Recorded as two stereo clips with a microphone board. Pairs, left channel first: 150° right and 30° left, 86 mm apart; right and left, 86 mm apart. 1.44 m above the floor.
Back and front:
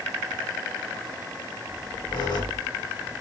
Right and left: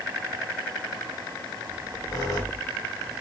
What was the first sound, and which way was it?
A squeak, 130° right.